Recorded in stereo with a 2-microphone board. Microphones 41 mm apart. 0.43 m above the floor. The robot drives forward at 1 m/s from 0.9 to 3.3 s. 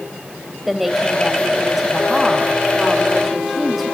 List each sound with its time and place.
0.7 s a woman speaking: 5° right (ahead or behind), 2 m